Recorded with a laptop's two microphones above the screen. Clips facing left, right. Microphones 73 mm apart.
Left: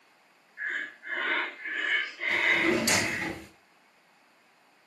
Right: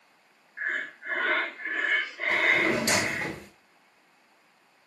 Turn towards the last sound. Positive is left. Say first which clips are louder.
# right 1 dB
turn(degrees=-35)  # may be behind; listen again after turning